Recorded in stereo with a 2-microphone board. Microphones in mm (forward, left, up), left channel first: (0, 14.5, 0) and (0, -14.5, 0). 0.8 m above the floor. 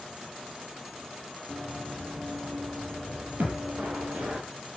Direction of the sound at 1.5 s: 65° right (ahead or behind).